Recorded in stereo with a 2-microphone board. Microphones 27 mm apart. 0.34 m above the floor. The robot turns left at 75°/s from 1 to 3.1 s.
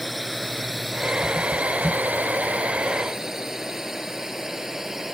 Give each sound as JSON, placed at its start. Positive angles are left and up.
{"t": 0.0, "sound": "a drone", "side_deg": 0}